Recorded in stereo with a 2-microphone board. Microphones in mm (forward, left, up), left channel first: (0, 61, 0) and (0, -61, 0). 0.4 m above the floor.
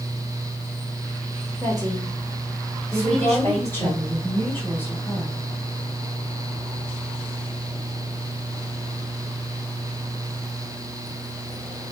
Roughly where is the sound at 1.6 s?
Right.